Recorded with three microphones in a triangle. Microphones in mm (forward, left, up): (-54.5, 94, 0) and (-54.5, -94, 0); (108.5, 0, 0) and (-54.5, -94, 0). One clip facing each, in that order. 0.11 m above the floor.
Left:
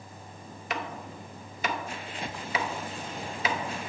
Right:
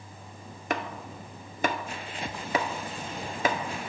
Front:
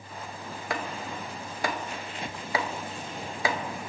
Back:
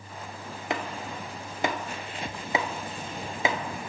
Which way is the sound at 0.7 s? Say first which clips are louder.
Right 3 dB, back 1 dB; 85° right.